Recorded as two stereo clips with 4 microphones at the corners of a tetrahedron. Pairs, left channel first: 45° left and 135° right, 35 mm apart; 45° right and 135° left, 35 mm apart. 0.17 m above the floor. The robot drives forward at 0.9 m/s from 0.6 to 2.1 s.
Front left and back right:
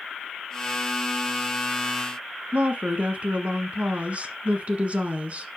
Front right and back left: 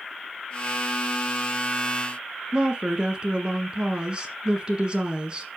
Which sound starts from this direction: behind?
A woman speaking, at 2.5 s.